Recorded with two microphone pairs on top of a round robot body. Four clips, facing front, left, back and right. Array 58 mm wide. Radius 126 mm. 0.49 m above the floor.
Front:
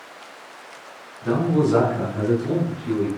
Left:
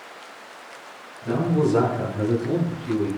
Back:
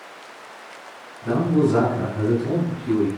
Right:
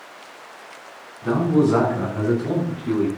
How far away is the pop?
I don't hear a pop.